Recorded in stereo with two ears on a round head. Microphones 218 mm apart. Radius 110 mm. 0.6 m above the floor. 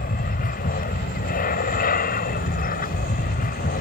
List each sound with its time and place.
0.0 s an aircraft: 35° left (ahead or behind)